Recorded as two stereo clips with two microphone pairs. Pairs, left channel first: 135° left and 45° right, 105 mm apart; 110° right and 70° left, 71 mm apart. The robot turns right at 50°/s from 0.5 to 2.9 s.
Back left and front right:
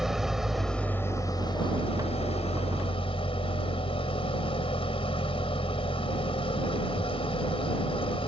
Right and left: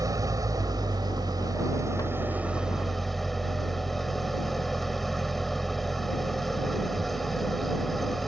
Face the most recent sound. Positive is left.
turn(degrees=165)